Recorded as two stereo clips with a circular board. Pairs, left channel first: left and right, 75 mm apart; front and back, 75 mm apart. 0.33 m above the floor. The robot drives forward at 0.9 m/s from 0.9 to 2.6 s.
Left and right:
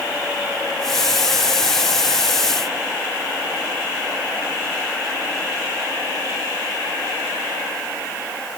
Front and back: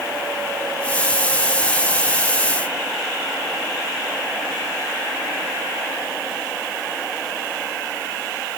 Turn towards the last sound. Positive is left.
No sound to turn to.